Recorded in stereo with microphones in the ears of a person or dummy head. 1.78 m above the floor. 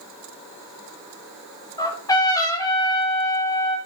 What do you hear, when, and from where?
1.8 s a trumpet: 20° left (ahead or behind), 1.8 m